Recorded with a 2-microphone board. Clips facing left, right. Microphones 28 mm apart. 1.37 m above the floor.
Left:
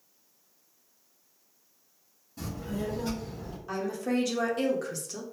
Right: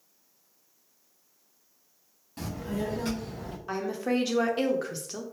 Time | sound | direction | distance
2.4 | a child speaking | 75° right (ahead or behind) | 1.7 m
3.7 | a woman speaking | 30° right (ahead or behind) | 0.8 m